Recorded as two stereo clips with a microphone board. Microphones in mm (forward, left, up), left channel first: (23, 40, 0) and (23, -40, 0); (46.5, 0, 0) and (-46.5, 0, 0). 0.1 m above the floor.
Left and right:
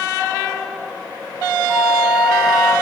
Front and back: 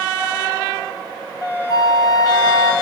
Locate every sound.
1.7 s a flute: 20° right, 1.8 m